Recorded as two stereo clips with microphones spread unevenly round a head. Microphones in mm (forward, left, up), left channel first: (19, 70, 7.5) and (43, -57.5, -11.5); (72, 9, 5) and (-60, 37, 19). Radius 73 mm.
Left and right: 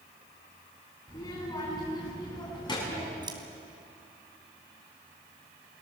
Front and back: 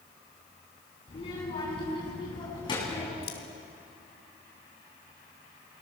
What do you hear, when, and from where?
1.1 s a child speaking: 40° left, 9 m; by 3.1 s 50° left, 7.5 m
3.2 s scissors: 20° right, 3 m